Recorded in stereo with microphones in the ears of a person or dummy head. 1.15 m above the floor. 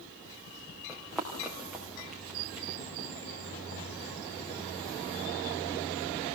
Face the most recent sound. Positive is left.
turn(degrees=-5)  # may be behind; listen again after turning